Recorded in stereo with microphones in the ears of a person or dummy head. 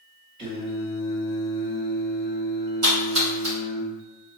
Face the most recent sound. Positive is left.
turn(degrees=-80)